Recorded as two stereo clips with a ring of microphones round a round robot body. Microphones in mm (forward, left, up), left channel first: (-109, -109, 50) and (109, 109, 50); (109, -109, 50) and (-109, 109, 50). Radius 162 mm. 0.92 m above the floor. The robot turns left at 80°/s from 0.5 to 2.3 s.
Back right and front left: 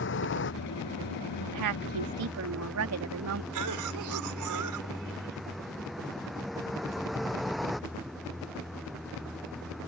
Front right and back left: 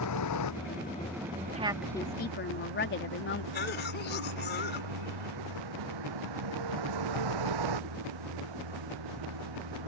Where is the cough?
15° left.